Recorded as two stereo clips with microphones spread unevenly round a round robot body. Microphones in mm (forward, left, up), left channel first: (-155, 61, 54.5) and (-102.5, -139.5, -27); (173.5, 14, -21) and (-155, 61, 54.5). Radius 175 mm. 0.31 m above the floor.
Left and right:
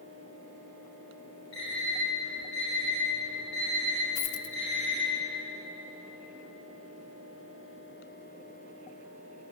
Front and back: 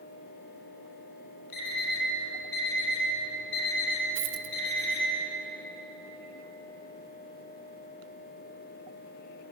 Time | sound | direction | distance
1.5 | an alarm clock | 25° left | 5 m
4.2 | a dropped coin | 110° left | 0.5 m